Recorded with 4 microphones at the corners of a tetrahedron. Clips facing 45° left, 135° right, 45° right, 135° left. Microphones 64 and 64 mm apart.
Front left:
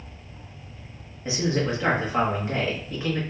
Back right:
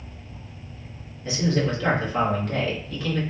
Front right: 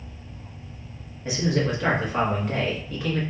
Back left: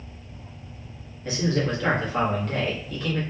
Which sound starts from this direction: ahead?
A man speaking, at 1.2 s.